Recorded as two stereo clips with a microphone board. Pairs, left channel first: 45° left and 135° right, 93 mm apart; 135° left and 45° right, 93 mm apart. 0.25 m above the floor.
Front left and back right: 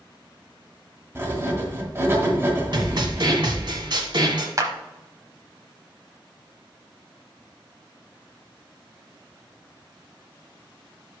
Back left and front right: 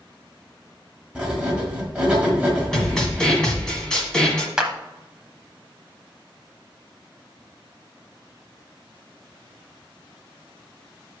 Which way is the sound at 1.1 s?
110° right.